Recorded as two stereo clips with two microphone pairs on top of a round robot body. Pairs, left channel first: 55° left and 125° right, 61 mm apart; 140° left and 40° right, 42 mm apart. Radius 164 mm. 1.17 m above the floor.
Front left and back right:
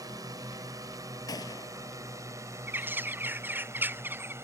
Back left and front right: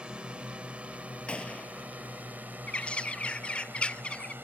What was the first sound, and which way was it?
A drone, 110° right.